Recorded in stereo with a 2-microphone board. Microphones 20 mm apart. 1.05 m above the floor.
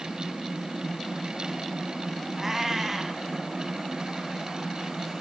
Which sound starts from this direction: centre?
A cat meowing, at 2.4 s.